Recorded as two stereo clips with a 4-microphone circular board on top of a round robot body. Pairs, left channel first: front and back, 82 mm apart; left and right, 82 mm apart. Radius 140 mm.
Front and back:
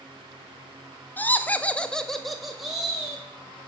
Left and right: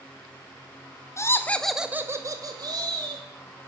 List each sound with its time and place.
1.2 s laughter: 55° left, 0.7 m; by 3.2 s 100° right, 1.2 m